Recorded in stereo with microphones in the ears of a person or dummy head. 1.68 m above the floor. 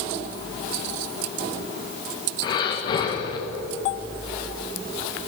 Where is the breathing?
25° left (ahead or behind), 1.6 m.